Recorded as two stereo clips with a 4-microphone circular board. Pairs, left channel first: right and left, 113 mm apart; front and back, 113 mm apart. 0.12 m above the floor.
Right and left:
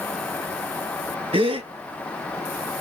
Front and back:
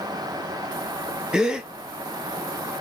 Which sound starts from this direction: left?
A gasp, at 1.3 s.